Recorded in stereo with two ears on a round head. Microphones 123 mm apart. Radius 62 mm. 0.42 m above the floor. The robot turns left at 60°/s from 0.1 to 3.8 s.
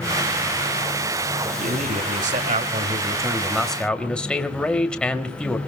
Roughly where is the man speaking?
Ahead right.